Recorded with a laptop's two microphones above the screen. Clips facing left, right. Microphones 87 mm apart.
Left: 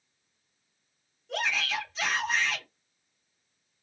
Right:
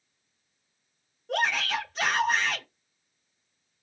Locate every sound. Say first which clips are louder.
1.3 s a shout: right 4 dB; 50° right (ahead or behind), 1.7 m